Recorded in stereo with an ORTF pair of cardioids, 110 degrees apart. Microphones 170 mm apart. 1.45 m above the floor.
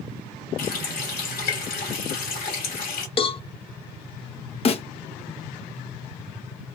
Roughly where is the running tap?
Ahead left.